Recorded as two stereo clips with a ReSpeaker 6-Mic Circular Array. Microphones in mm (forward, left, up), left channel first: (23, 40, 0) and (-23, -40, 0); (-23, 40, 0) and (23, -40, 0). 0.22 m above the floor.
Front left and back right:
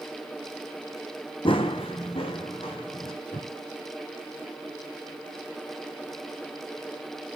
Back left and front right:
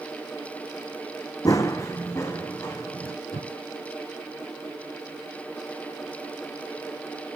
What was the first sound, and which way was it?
Running footsteps, 75° left.